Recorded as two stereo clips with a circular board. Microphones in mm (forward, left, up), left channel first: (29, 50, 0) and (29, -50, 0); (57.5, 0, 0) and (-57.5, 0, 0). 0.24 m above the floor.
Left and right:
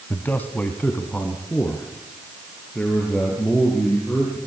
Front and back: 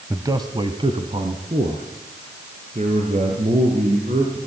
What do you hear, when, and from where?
0.1 s a man speaking: 145° left, 1.0 m; by 4.4 s 165° left, 5 m